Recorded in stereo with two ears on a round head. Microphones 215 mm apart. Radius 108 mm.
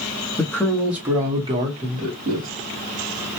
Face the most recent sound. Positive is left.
turn(degrees=-35)  # may be behind; listen again after turning